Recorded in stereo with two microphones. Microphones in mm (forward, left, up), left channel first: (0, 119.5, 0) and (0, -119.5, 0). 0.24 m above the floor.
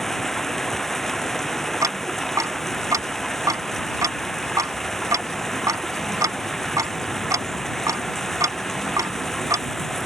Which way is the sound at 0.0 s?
Centre (ahead or behind).